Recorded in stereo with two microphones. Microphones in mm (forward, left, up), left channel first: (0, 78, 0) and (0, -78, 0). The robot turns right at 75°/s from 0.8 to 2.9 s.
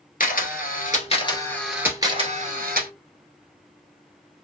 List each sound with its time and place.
0.2 s a camera shutter: 115° left, 1.0 m; by 2.9 s 90° right, 1.0 m